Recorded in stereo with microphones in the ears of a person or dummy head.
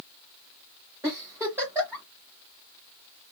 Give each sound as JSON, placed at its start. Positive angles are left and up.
{"t": 1.0, "sound": "a giggle", "side_deg": -10, "distance_m": 1.5}